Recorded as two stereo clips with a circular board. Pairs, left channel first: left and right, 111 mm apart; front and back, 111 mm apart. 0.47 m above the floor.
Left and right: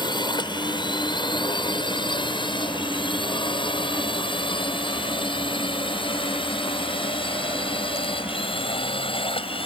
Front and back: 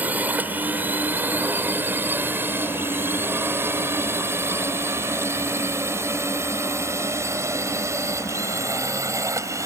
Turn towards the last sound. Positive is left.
turn(degrees=120)